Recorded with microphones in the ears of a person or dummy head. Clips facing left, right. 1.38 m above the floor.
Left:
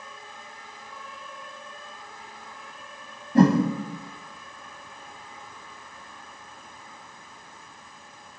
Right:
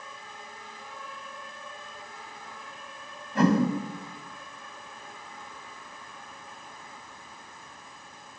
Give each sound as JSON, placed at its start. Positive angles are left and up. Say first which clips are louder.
{"t": 3.4, "sound": "a whoosh", "louder": "left 5 dB", "side_deg": 30, "distance_m": 1.7}